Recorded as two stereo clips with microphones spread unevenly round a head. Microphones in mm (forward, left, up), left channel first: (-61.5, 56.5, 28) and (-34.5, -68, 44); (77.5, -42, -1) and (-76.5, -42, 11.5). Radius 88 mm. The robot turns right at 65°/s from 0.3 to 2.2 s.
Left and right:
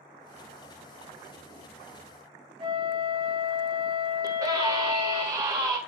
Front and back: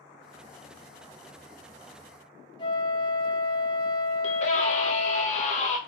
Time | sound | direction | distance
2.6 | a flute | 55° right | 0.7 m
4.2 | a scream | 10° right | 0.8 m